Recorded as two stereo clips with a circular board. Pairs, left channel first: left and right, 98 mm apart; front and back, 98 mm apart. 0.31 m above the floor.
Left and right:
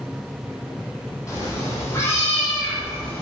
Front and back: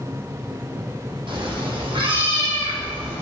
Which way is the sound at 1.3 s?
150° left.